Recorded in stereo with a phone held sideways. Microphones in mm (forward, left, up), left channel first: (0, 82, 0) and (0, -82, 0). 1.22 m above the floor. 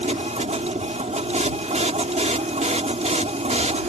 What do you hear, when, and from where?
0.0 s a machine running: 45° right (ahead or behind)